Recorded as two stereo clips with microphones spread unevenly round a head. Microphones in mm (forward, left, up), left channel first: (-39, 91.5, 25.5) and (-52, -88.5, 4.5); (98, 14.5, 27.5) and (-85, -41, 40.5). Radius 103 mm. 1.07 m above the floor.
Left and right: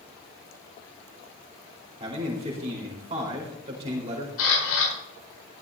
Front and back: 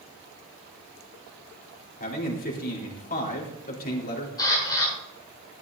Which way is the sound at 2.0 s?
30° right.